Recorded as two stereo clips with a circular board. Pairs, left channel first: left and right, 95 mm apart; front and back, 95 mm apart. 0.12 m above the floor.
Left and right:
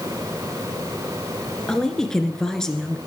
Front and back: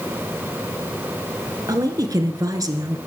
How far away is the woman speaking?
About 1.8 m.